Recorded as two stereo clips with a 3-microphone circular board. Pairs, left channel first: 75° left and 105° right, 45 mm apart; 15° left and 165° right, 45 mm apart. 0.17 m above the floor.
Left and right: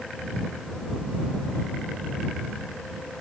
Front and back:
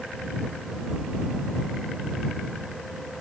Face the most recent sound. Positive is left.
No sound to turn to.